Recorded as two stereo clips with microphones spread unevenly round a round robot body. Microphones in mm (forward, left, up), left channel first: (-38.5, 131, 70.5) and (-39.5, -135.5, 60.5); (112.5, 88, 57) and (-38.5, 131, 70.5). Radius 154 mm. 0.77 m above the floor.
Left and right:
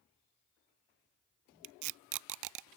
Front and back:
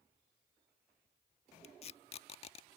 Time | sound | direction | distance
1.6 | tape being pulled | 75° right | ?